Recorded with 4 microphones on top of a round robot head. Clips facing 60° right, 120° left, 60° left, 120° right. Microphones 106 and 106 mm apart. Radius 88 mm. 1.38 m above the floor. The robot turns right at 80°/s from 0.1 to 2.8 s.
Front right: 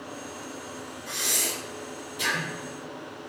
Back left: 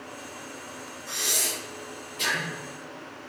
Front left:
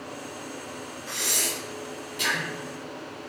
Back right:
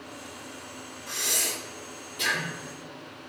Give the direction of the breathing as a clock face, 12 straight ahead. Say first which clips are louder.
Even, front left 1 dB; 3 o'clock.